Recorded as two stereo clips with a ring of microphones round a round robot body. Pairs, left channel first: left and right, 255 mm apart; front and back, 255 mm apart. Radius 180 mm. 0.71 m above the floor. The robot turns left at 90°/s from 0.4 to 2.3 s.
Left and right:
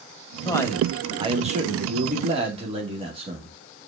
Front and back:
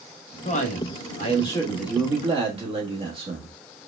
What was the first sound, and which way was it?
A man speaking, 35° left.